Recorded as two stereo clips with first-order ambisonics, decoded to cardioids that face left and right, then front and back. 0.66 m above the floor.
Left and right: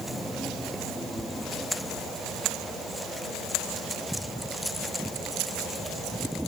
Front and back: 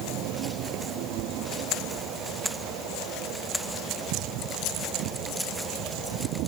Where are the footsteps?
No footsteps in this recording.